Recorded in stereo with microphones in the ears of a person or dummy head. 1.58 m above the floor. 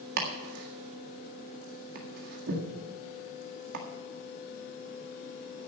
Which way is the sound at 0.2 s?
50° right (ahead or behind).